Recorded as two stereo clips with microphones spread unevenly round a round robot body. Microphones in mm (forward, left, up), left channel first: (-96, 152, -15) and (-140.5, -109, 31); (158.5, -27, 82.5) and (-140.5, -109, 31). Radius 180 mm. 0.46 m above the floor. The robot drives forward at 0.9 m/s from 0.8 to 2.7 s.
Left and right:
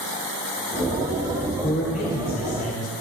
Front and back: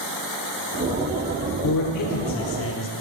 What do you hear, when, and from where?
1.6 s a man speaking: 25° left, 1.8 m; by 2.9 s 55° left, 1.2 m